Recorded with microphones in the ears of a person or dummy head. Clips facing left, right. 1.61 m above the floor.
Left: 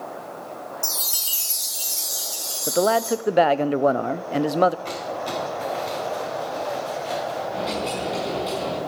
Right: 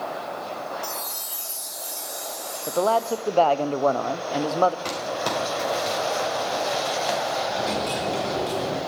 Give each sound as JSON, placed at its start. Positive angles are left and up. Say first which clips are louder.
{"t": 0.8, "sound": "a chime", "louder": "right 3 dB", "side_deg": 45, "distance_m": 1.8}
{"t": 2.7, "sound": "a man speaking", "louder": "left 2 dB", "side_deg": 15, "distance_m": 0.5}
{"t": 4.8, "sound": "crumpling", "louder": "right 1 dB", "side_deg": -80, "distance_m": 4.0}
{"t": 7.5, "sound": "a dropped coin", "louder": "even", "side_deg": 0, "distance_m": 6.0}